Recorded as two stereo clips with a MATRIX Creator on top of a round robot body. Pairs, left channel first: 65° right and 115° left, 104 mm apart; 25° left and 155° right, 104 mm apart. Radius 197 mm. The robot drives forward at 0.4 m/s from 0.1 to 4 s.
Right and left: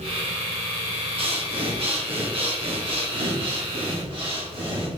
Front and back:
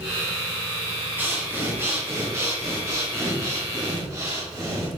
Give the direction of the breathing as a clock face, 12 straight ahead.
8 o'clock.